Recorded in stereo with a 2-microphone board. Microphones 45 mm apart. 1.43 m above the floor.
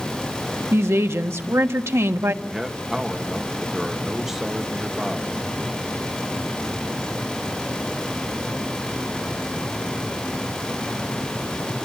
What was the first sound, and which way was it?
A woman speaking, 80° right.